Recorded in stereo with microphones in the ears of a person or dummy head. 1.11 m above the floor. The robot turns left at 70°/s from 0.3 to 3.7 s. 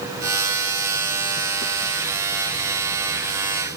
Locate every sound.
Only background noise.